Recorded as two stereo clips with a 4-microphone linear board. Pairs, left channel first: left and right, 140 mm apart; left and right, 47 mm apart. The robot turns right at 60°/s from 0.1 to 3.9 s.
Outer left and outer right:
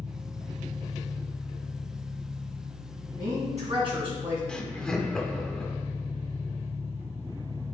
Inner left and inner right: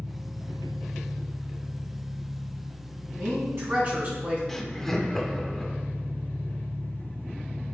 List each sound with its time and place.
0.0 s an engine running: 170° right, 2.5 m; by 7.8 s 60° left, 2.5 m
3.2 s a woman speaking: 85° right, 3 m; by 4.4 s 45° right, 3 m
4.5 s laughter: 5° left (ahead or behind), 0.8 m